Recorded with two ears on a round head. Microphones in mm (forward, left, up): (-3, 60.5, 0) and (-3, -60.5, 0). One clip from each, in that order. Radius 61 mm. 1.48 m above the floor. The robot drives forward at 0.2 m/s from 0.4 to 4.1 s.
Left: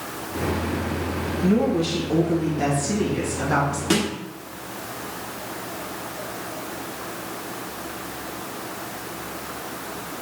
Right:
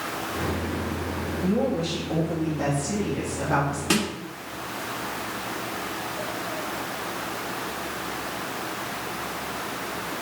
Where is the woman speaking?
20° left (ahead or behind), 1.9 m.